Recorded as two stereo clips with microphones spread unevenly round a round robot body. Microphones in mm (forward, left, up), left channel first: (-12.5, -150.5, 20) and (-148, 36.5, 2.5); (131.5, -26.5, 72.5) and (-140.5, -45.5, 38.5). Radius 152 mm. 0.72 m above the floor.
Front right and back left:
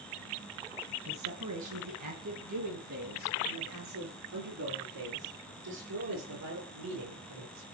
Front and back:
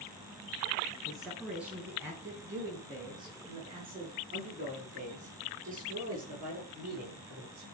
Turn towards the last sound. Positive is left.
turn(degrees=125)